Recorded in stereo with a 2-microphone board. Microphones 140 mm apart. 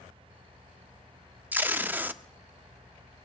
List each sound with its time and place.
1.5 s tape being pulled: 15° right (ahead or behind), 0.5 m